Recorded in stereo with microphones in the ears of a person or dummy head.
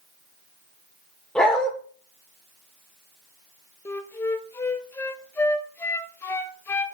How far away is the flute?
About 0.8 m.